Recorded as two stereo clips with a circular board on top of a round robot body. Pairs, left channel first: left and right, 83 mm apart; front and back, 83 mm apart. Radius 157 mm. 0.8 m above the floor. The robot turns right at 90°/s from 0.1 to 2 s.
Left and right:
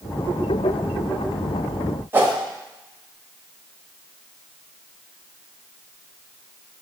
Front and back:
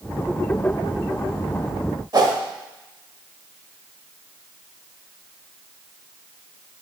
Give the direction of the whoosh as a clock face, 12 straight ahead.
5 o'clock.